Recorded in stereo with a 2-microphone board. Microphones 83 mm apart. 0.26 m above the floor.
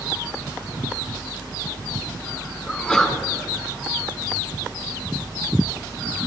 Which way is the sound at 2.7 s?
10° left (ahead or behind).